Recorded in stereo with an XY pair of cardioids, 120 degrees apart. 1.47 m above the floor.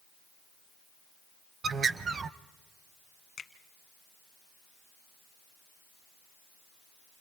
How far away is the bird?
About 0.7 m.